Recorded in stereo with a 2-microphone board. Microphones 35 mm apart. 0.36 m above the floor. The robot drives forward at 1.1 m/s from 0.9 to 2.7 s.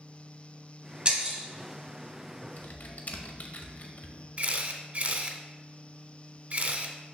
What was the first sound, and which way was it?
Breaking glass, 30° right (ahead or behind).